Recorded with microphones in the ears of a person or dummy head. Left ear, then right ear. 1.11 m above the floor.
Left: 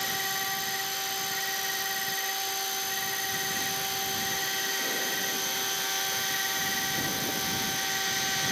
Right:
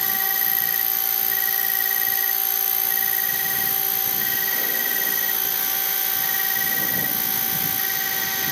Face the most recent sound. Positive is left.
turn(degrees=-30)  # may be behind; listen again after turning